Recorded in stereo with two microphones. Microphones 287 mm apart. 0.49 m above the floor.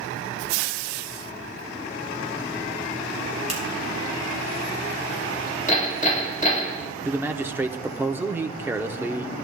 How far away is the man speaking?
About 0.7 m.